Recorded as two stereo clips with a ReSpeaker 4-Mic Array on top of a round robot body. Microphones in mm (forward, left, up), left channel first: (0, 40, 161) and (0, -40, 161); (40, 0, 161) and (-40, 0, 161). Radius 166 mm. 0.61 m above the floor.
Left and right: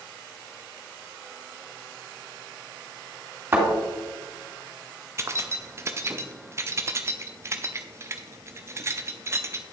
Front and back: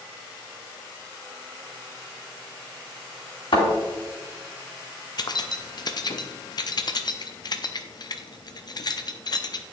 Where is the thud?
20° right, 3 m.